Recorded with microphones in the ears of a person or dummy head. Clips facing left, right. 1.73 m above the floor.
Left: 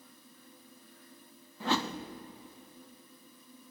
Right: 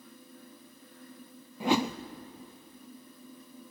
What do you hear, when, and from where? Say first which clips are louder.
1.6 s a whoosh: right 5 dB; 15° right (ahead or behind), 0.6 m